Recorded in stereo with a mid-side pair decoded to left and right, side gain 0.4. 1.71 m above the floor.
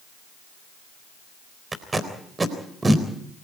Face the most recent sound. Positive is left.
turn(degrees=-30)